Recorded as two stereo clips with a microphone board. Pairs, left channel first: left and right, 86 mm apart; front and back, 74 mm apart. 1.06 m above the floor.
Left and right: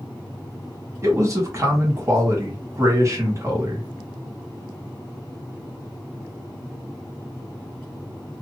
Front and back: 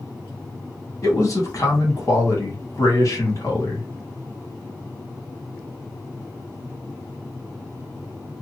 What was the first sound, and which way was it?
A man speaking, 40° right.